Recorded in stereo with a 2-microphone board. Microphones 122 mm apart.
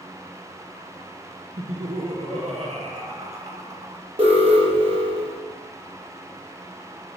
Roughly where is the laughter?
Right.